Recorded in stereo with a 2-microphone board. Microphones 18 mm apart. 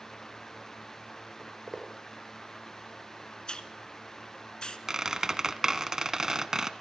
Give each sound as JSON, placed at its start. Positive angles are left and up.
{"t": 1.4, "sound": "footsteps", "side_deg": -35, "distance_m": 5.5}
{"t": 3.5, "sound": "a hiss", "side_deg": 55, "distance_m": 1.7}
{"t": 4.9, "sound": "a squeak", "side_deg": -30, "distance_m": 1.2}